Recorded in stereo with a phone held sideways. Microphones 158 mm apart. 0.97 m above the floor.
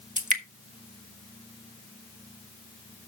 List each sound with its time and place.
0.2 s dripping: 55° right (ahead or behind), 1.4 m